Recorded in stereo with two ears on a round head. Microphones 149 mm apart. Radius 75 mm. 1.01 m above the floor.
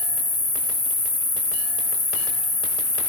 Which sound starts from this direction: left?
An insect, at 0.0 s.